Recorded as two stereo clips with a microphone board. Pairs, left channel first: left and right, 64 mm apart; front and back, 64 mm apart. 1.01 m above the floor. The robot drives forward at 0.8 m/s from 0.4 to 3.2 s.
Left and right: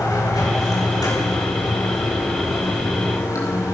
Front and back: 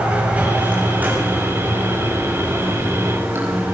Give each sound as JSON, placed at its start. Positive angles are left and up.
{"t": 0.0, "sound": "running water", "azimuth_deg": 110, "distance_m": 6.0}